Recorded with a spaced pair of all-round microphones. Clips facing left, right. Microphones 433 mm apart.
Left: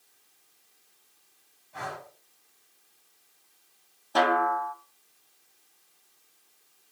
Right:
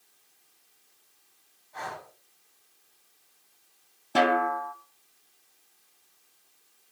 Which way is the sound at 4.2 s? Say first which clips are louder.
Right 1 dB; 40° right (ahead or behind).